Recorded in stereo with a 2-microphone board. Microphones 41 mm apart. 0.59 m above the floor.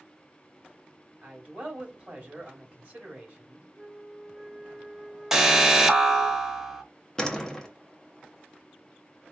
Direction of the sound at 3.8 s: 15° right (ahead or behind).